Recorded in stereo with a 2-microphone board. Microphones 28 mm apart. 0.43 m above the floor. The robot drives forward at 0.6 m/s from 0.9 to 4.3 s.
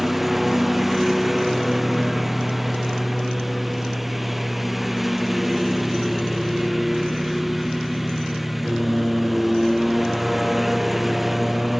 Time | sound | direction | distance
0.0 | a lawn mower | 5° right (ahead or behind) | ?